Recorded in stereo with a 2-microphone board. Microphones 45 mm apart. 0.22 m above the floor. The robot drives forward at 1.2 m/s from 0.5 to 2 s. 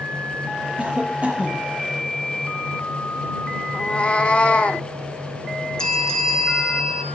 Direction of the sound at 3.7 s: 25° left (ahead or behind).